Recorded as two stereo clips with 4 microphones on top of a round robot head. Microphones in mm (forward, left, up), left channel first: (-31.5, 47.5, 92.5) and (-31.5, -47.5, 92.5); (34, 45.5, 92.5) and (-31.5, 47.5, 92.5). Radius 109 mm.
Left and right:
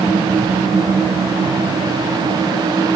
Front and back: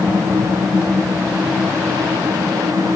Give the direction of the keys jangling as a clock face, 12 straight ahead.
No keys jangling in this recording.